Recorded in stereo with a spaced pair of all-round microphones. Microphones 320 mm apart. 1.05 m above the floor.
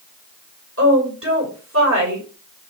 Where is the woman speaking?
40° right (ahead or behind), 3 m.